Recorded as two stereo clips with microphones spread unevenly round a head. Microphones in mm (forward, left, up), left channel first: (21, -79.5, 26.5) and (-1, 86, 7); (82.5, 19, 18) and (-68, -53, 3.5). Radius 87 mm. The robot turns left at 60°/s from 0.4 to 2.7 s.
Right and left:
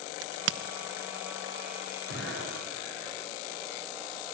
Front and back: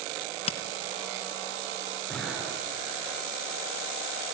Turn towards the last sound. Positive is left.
turn(degrees=-95)